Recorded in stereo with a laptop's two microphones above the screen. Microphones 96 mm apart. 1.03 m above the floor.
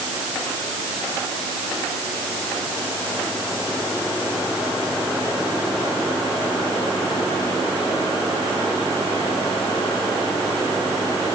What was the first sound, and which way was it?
Only background noise.